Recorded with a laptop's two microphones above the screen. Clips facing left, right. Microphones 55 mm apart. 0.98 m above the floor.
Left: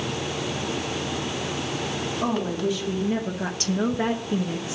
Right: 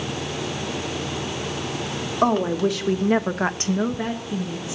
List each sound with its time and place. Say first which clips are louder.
2.2 s a woman speaking: right 7 dB; 80° right, 1.7 m; by 4.8 s 45° left (ahead or behind), 1.3 m